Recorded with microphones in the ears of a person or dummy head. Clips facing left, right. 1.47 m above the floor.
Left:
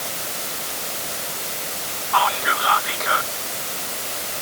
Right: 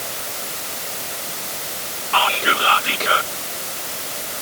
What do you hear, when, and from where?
2.1 s whispering: 35° right (ahead or behind)